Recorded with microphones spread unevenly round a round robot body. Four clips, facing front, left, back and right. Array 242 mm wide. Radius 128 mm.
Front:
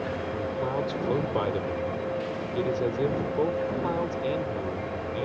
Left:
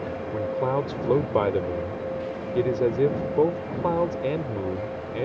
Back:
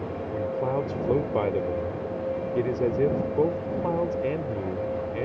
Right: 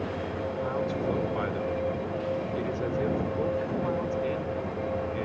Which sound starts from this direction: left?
A man speaking, at 0.3 s.